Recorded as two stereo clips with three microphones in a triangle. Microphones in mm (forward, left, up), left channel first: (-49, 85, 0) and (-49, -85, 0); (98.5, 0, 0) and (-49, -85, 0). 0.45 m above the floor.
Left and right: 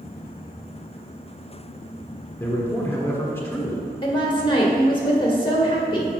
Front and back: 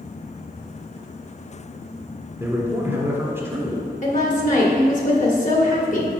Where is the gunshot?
I don't hear a gunshot.